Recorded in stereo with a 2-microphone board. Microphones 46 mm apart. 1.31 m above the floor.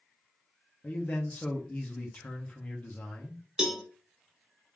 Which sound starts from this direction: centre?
A cowbell, at 3.6 s.